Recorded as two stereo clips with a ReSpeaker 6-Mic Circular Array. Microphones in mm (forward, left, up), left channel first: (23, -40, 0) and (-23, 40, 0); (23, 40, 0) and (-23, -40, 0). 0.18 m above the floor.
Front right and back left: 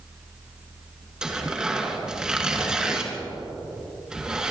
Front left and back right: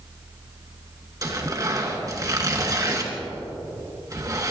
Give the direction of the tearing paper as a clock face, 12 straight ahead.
5 o'clock.